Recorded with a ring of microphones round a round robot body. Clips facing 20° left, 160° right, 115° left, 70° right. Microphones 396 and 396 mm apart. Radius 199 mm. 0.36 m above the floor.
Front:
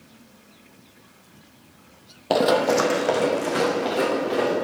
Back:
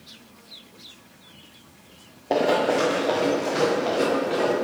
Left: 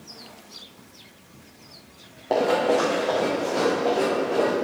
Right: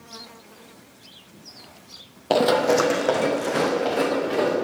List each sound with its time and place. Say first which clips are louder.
2.3 s running footsteps: front 2 dB, right 2 dB; 25° right, 0.8 m